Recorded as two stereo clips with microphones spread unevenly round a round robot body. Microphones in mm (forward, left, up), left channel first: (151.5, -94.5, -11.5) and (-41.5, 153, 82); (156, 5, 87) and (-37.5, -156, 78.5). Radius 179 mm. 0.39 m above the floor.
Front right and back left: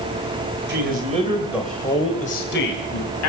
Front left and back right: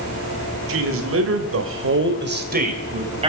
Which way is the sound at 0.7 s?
165° right.